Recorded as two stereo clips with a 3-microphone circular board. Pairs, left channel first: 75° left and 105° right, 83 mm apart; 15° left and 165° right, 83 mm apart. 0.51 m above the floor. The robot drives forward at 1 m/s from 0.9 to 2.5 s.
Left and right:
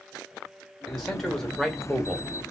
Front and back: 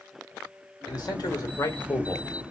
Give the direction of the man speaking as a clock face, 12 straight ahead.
12 o'clock.